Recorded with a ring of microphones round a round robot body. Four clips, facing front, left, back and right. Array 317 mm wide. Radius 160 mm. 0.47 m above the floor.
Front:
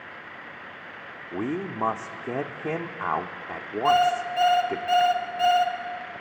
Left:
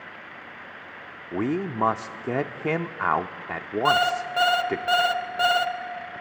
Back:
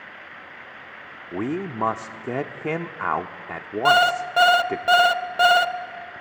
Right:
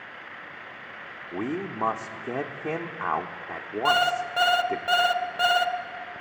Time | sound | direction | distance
1.3 | a man speaking | 120° left | 0.8 m
3.9 | an alarm clock | straight behind | 0.8 m